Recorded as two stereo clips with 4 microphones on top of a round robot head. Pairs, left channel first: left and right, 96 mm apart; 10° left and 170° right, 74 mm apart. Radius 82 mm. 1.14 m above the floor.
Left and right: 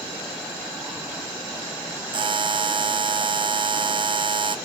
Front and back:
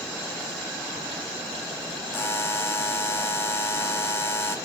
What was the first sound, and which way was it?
A buzzer, 55° right.